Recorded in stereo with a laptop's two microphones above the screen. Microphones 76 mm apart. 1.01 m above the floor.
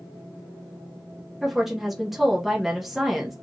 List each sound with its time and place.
1.4 s a woman speaking: 5° right (ahead or behind), 0.7 m